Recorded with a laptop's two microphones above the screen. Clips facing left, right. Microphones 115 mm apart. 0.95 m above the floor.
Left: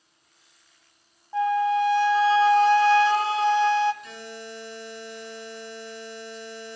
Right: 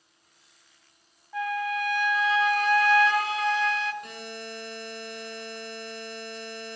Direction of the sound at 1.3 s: 30° left (ahead or behind).